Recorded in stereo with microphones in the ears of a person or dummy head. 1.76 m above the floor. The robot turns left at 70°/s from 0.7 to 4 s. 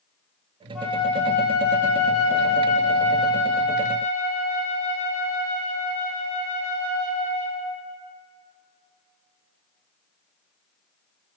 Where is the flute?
170° left, 1.1 m; by 7.7 s 55° right, 1.1 m.